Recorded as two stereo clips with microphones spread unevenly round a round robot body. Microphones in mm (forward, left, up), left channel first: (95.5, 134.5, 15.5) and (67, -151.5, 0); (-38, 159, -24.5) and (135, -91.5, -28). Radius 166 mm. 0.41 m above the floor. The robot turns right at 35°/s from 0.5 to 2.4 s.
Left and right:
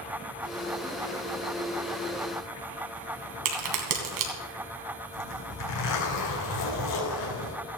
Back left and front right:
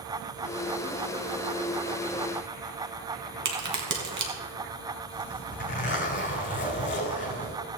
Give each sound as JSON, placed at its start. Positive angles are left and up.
{"t": 3.5, "sound": "a crack", "azimuth_deg": -110, "distance_m": 2.5}
{"t": 5.1, "sound": "a zipper", "azimuth_deg": 70, "distance_m": 5.0}